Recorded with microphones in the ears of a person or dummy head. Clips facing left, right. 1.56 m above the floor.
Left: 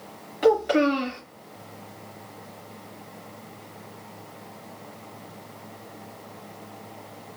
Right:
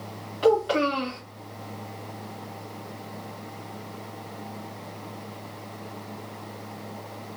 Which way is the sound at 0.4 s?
25° left (ahead or behind).